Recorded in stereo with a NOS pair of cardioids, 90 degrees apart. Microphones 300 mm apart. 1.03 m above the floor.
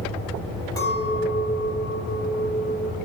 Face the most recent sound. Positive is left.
turn(degrees=10)